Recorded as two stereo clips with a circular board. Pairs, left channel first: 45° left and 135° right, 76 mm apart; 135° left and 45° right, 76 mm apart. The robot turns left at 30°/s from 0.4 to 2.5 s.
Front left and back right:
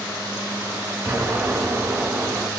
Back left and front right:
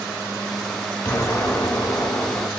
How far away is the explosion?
About 1.5 m.